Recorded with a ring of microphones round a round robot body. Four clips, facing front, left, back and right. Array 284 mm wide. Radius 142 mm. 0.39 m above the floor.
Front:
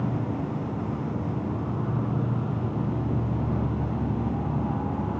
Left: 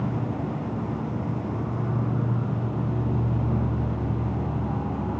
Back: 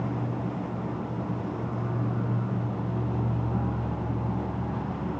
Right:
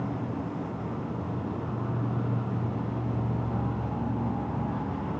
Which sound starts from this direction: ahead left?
An insect, at 0.0 s.